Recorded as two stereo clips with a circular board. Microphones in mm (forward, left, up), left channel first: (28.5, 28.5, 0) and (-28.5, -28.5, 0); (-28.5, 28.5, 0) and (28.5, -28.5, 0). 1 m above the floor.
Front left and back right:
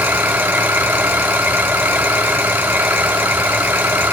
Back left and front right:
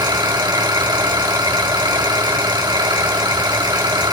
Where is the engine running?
70° right, 4.5 m.